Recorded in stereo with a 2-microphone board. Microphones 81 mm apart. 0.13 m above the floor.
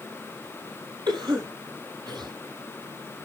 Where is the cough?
75° right (ahead or behind), 5.5 m.